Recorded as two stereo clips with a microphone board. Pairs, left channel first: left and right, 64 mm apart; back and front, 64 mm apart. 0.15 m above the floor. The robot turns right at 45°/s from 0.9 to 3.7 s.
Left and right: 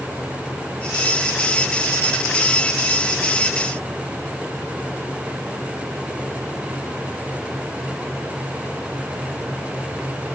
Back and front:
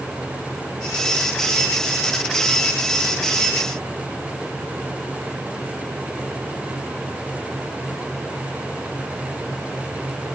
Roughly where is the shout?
I don't hear a shout.